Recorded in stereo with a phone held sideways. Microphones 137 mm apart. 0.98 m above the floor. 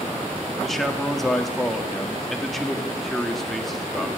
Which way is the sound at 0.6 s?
Centre (ahead or behind).